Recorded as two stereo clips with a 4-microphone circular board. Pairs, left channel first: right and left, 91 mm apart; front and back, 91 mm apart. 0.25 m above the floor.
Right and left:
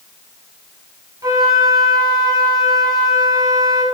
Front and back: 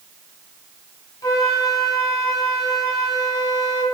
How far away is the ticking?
No ticking in this recording.